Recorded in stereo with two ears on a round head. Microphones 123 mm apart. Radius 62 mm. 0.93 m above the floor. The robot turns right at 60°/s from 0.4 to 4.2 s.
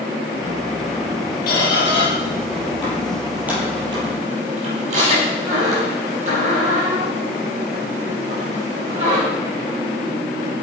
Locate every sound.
1.5 s a squeak: 70° left (ahead or behind), 7 m; by 9.2 s 55° right (ahead or behind), 7 m